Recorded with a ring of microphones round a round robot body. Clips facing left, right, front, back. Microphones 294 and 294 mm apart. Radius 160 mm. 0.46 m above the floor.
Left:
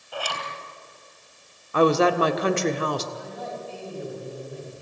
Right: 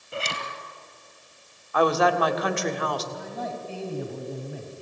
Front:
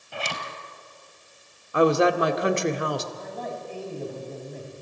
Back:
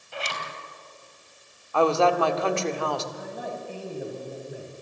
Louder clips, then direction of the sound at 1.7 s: Left 3 dB, front 2 dB; 55° left.